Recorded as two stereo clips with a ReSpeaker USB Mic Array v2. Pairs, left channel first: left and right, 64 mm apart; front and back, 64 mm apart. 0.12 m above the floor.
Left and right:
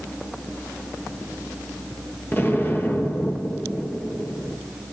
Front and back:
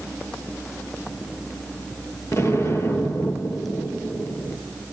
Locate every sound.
2.3 s an explosion: 35° left, 1.9 m